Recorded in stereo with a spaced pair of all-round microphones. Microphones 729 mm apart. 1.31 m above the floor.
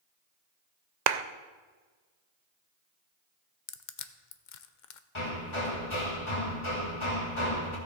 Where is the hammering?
40° left (ahead or behind), 1.8 m.